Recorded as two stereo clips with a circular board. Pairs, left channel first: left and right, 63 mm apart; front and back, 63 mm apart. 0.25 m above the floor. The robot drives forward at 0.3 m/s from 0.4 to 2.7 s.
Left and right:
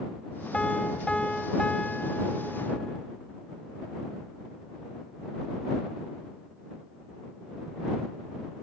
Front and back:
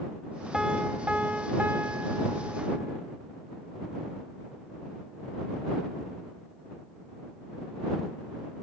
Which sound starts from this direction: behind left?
A piano, at 0.5 s.